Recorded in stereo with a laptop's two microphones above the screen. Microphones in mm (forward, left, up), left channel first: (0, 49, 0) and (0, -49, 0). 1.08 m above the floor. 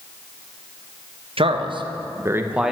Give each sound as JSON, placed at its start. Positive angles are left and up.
{"t": 1.4, "sound": "a man speaking", "side_deg": -70, "distance_m": 0.8}